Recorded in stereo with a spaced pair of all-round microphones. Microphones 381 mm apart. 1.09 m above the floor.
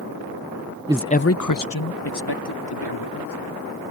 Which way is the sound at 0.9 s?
15° right (ahead or behind).